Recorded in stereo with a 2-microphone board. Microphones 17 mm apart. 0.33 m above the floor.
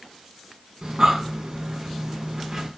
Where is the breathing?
50° right (ahead or behind), 3.5 m.